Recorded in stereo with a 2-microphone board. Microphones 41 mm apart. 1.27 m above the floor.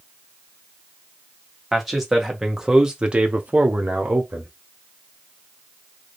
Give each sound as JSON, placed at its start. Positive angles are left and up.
{"t": 1.7, "sound": "a man speaking", "side_deg": 0, "distance_m": 1.3}